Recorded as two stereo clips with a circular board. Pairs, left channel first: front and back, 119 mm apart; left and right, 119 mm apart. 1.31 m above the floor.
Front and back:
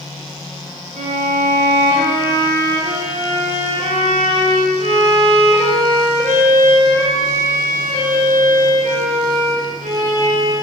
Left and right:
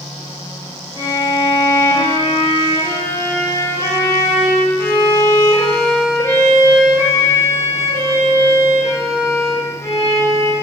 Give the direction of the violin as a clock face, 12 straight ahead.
7 o'clock.